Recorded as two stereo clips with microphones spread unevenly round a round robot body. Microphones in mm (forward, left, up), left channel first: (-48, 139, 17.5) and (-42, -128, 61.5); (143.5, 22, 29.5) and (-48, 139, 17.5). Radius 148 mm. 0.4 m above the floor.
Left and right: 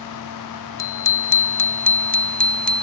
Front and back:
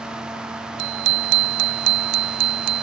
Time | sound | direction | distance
0.8 | a bicycle bell | 170° left | ?